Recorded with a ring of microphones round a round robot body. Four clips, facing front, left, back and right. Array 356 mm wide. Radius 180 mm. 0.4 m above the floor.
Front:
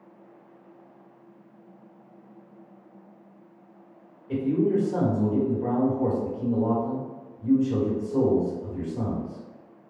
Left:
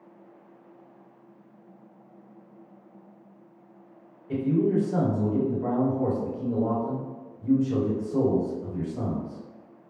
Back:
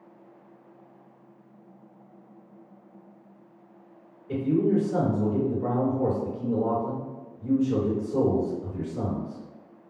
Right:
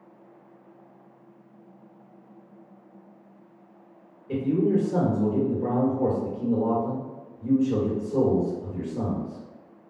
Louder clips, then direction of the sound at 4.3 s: Right 1 dB, even; 145° right.